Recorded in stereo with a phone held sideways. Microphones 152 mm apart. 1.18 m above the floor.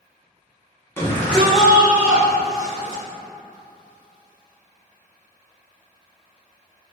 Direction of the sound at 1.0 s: 20° left (ahead or behind).